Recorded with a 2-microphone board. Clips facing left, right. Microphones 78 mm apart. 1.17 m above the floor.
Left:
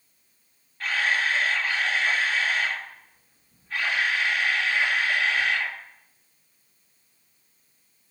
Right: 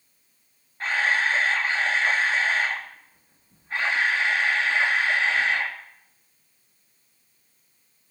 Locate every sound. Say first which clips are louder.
0.8 s a camera shutter: right 2 dB; 30° right (ahead or behind), 1.9 m